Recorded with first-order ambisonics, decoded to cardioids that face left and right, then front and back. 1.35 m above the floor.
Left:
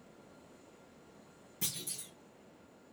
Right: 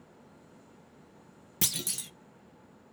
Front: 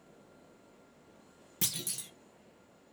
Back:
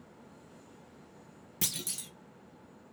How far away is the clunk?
About 0.6 m.